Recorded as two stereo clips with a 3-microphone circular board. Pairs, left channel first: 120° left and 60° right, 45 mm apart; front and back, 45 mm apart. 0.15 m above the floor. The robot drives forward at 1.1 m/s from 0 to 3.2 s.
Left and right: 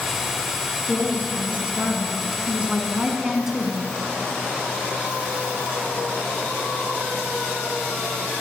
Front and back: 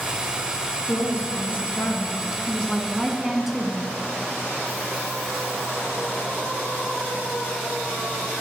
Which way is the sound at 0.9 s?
10° right.